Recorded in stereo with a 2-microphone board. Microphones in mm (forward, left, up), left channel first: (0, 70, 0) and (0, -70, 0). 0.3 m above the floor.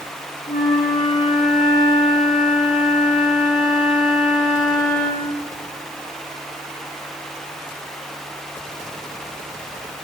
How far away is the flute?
About 9 m.